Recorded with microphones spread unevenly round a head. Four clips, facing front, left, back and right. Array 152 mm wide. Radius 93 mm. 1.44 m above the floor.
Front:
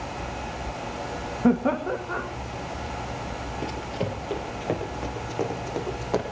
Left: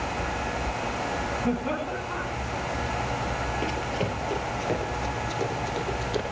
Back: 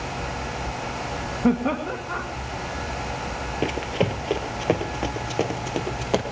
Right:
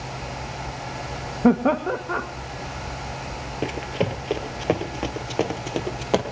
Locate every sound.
1.4 s laughter: 80° right, 1.7 m
3.6 s running footsteps: 150° right, 2 m; by 6.2 s 110° right, 2.5 m